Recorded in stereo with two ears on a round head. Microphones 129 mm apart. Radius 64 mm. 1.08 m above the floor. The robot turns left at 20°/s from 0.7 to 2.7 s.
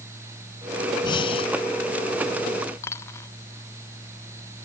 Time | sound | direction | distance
1.0 | breathing | 35° left (ahead or behind) | ?
2.8 | a dropped coin | 20° left (ahead or behind) | ?